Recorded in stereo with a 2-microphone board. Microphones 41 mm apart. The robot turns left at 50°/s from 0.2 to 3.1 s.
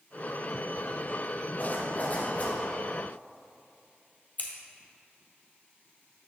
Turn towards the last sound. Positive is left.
turn(degrees=40)  # may be behind; listen again after turning